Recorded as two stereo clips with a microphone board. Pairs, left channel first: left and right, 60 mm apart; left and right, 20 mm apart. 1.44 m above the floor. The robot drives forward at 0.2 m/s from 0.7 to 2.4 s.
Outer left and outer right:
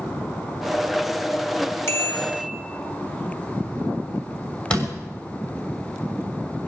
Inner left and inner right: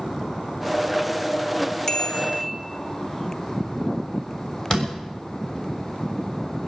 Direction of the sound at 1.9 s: 45° left (ahead or behind).